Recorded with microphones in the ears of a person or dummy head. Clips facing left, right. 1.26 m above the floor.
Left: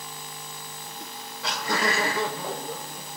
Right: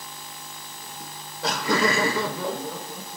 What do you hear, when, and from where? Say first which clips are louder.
1.0 s laughter: right 6 dB; centre (ahead or behind), 0.7 m; by 3.2 s 60° right (ahead or behind), 1.8 m